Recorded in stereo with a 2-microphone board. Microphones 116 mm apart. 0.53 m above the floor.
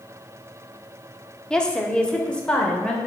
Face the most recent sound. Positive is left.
turn(degrees=10)  # may be behind; listen again after turning